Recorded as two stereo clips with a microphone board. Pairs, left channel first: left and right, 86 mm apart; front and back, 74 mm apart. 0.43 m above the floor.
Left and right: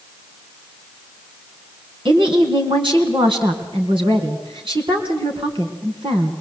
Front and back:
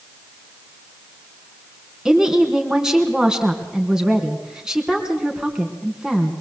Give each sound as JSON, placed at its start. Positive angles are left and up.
{"t": 2.0, "sound": "a woman speaking", "azimuth_deg": -95, "distance_m": 3.5}